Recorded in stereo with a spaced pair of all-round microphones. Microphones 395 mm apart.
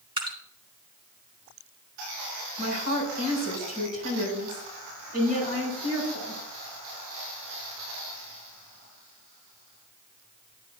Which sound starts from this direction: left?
A woman speaking, at 2.6 s.